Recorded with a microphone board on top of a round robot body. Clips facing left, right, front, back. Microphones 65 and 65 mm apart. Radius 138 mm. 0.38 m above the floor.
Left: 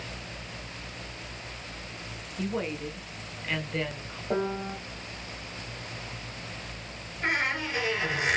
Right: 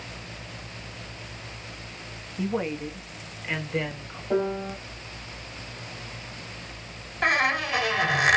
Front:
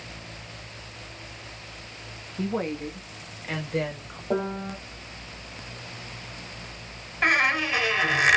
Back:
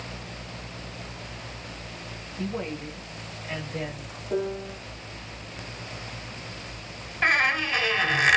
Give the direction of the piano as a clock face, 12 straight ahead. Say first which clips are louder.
Right 3 dB, front 1 dB; 12 o'clock.